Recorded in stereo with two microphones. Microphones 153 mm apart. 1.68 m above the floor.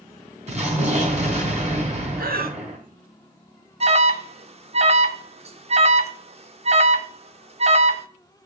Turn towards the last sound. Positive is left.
turn(degrees=-45)  # may be behind; listen again after turning